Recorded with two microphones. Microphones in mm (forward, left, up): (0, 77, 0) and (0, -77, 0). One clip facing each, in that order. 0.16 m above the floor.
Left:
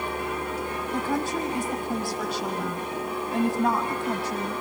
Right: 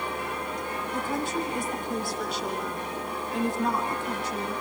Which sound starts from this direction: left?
A woman speaking, at 0.9 s.